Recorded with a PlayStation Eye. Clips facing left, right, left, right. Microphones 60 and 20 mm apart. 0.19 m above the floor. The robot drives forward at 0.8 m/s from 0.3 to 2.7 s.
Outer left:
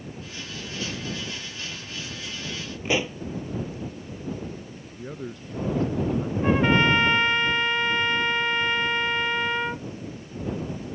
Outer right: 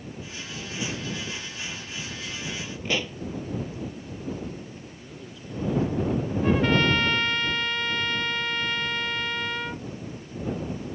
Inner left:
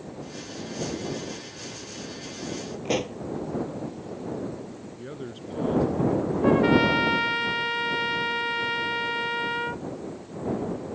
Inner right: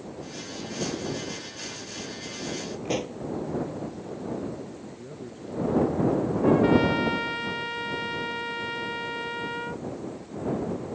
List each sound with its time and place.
2.9 s a pop: 15° left (ahead or behind)
5.0 s a man speaking: 60° left (ahead or behind)
6.4 s a trumpet: 20° left (ahead or behind)